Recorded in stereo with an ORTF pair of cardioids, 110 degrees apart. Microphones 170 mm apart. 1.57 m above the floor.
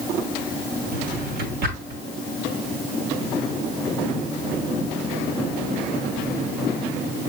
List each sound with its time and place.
0.9 s a drawer: 65° right, 4.5 m